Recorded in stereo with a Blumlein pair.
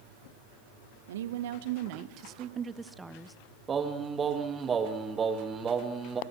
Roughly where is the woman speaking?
Ahead right.